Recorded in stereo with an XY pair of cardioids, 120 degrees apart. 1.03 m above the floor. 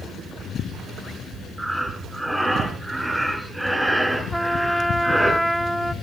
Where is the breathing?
10° right, 8.5 m.